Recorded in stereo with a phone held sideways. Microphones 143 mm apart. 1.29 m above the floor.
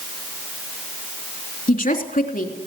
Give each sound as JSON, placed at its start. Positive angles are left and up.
{"t": 1.7, "sound": "a woman speaking", "side_deg": 75, "distance_m": 3.0}